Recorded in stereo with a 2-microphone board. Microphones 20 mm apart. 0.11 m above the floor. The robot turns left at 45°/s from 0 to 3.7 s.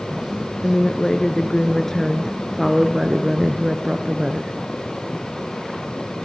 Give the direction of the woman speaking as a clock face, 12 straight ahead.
9 o'clock.